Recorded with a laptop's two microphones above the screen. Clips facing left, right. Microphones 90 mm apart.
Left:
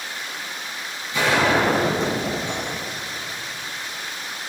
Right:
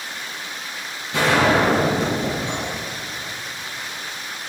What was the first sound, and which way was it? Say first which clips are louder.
A gunshot: right 2 dB; 60° right (ahead or behind).